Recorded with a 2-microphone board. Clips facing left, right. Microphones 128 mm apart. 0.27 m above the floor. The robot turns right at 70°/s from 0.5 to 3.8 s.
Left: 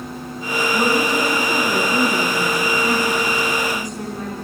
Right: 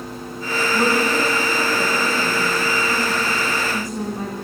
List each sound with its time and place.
0.7 s a woman speaking: straight ahead, 3 m; by 4.3 s 145° right, 3 m